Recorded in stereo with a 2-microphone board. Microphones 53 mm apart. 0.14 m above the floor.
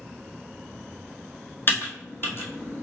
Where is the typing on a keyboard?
45° left (ahead or behind), 0.9 m.